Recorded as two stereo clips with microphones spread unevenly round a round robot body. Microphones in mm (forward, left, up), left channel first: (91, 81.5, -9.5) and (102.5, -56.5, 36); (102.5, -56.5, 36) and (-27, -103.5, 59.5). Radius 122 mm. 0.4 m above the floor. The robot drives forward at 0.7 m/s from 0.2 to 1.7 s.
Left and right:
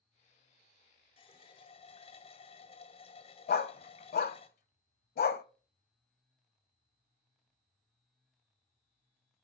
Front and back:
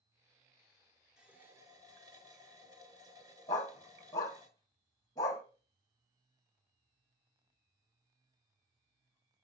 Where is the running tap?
110° left, 1.2 m; by 4.5 s 125° left, 1.3 m.